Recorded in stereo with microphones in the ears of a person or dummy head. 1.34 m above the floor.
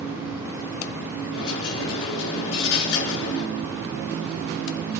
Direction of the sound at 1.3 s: 80° left.